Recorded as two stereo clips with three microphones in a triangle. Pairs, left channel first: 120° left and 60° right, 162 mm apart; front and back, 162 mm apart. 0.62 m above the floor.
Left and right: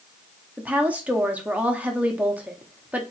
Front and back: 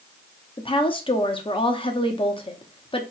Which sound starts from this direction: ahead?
A woman speaking, at 0.6 s.